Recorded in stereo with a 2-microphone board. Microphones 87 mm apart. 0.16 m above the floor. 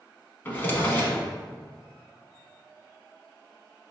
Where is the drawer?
25° left (ahead or behind), 0.8 m.